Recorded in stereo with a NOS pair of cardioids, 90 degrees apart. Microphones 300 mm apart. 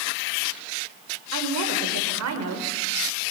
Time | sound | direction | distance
1.3 | a woman speaking | 65° right | 5.5 m